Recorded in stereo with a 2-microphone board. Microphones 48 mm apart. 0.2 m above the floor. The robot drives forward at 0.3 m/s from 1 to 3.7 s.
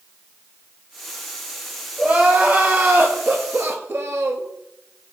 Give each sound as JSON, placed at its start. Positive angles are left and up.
{"t": 2.0, "sound": "crying", "side_deg": -30, "distance_m": 0.9}